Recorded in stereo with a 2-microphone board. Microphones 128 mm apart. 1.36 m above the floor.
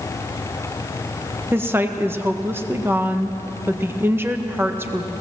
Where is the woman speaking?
20° right (ahead or behind), 1.4 m.